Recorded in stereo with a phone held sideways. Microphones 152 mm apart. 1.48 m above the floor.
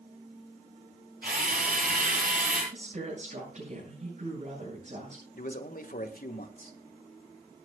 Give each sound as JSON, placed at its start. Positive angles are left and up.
{"t": 1.2, "sound": "a drill", "side_deg": -70, "distance_m": 8.0}
{"t": 2.7, "sound": "a woman speaking", "side_deg": -55, "distance_m": 7.5}
{"t": 5.3, "sound": "a man speaking", "side_deg": 70, "distance_m": 1.8}